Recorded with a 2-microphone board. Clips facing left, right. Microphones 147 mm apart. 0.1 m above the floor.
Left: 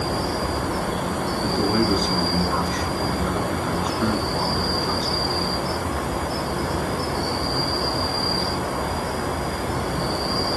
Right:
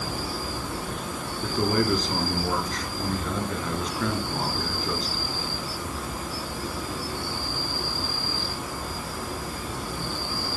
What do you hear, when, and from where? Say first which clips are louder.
0.0 s an insect: left 8 dB; 65° left (ahead or behind), 0.9 m
1.4 s a man speaking: left 2 dB; centre (ahead or behind), 2 m